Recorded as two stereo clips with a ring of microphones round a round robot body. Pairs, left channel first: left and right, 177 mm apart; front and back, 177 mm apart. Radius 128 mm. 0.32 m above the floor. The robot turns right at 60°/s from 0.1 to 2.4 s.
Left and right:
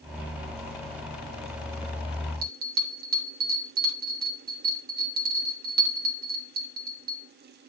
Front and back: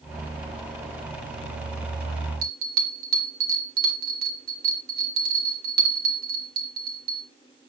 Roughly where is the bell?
Behind right.